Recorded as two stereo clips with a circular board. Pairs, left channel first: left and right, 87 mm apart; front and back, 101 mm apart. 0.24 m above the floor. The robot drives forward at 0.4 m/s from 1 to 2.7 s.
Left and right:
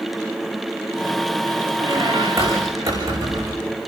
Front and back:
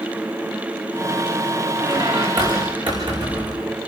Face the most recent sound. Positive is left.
turn(degrees=-140)